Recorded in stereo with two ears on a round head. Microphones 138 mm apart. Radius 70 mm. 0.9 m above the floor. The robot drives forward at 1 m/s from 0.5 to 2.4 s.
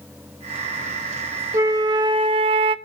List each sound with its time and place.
1.5 s a flute: 20° right (ahead or behind), 1.3 m; by 2.8 s 35° right (ahead or behind), 0.8 m